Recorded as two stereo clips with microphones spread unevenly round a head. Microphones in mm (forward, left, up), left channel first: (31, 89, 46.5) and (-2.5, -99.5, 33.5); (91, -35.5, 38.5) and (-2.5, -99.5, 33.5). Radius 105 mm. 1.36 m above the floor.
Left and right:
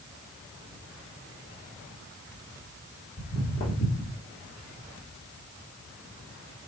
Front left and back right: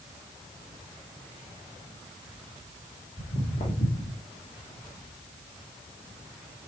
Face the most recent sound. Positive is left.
turn(degrees=25)